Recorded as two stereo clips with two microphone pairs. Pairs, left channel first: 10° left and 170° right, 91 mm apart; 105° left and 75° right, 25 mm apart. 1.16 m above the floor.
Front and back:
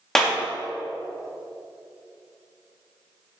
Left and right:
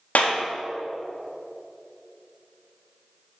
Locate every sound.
0.1 s a clap: 95° left, 1.5 m